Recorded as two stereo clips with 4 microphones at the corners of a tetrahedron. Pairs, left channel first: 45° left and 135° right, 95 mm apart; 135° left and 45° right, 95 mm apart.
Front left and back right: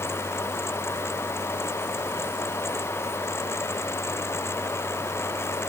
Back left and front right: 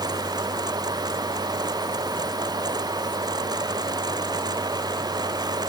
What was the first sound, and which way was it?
Only background noise.